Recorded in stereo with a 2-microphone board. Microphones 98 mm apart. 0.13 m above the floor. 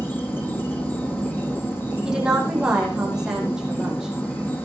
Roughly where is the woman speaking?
Centre.